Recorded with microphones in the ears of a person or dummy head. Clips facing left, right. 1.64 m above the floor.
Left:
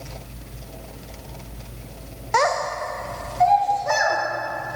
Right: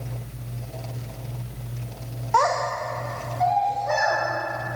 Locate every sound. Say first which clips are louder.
2.3 s a child speaking: left 1 dB; 20° left (ahead or behind), 0.6 m; by 4.2 s 75° left (ahead or behind), 2.5 m